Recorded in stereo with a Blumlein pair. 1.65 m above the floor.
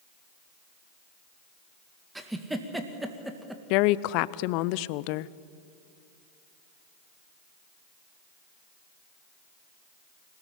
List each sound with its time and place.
2.1 s a giggle: 5° right, 1.9 m
3.7 s a woman speaking: 45° left, 0.6 m